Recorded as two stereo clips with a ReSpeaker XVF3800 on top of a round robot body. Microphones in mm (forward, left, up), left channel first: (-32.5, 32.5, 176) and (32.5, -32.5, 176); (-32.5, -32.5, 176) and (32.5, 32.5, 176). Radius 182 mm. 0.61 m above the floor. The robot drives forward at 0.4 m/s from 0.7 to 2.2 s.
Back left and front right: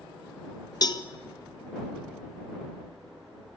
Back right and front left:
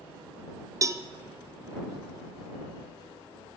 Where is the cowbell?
95° left, 0.8 m; by 1.0 s 105° left, 0.8 m.